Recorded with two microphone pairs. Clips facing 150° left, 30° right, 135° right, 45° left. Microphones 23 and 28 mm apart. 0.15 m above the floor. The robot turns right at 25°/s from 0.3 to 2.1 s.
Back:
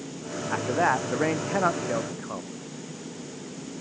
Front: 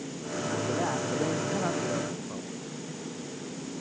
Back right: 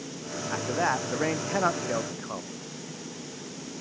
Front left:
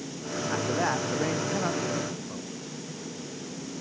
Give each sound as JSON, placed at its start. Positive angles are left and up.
{"t": 0.5, "sound": "a man speaking", "azimuth_deg": 140}